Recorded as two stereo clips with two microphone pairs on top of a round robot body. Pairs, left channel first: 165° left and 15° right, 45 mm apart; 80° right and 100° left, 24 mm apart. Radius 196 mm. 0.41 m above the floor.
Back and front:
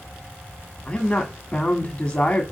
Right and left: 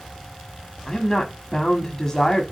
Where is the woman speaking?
125° right, 1.6 m.